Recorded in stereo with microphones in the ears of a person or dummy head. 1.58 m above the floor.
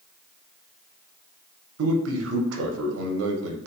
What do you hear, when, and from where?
1.8 s a man speaking: 80° right, 0.6 m